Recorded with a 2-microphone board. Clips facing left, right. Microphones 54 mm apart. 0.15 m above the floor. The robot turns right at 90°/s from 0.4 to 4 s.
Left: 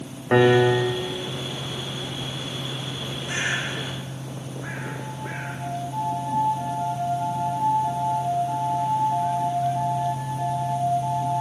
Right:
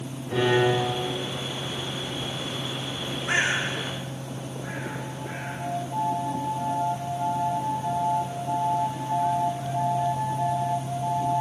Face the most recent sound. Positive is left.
turn(degrees=25)  # may be behind; listen again after turning